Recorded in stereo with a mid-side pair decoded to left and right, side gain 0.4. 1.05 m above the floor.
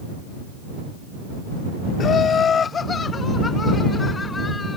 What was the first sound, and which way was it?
Laughter, 60° left.